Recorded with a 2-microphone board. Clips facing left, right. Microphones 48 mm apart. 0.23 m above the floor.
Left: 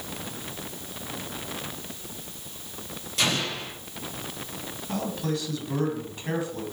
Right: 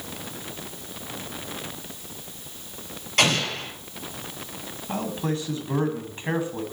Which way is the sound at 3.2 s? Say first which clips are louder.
Right 5 dB; 60° right (ahead or behind).